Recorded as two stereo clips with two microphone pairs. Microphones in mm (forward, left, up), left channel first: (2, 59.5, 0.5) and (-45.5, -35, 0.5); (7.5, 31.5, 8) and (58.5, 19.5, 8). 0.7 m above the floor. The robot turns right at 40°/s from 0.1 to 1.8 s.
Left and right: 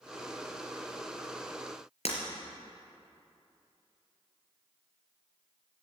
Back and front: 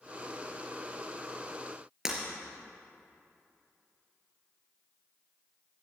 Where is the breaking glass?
65° left, 3.5 m.